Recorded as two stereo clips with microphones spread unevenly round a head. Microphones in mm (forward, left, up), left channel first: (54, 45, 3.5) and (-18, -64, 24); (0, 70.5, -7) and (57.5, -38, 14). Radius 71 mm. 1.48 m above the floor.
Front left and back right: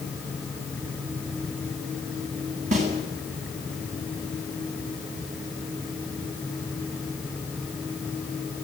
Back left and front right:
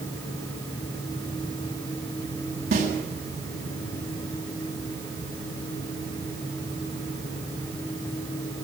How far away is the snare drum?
About 7.5 m.